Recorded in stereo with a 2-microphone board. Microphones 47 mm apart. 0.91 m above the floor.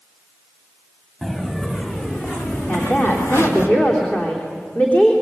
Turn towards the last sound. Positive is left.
turn(degrees=40)  # may be behind; listen again after turning